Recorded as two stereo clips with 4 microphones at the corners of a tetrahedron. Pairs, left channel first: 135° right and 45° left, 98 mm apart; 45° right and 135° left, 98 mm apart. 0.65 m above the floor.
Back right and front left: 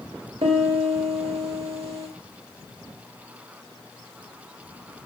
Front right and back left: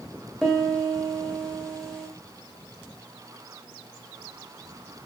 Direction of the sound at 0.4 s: 40° left.